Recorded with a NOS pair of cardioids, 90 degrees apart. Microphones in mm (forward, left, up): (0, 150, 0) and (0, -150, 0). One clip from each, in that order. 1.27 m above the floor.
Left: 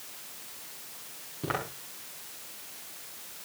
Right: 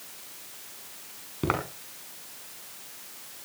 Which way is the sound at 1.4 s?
60° right.